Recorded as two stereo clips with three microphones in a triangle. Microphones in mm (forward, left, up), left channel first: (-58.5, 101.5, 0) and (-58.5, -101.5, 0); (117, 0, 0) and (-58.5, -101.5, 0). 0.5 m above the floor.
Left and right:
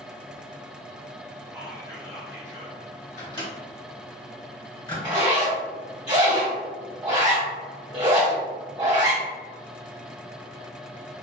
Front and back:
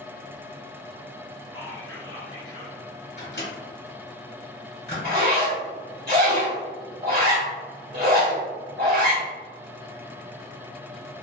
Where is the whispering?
25° right, 1.5 m.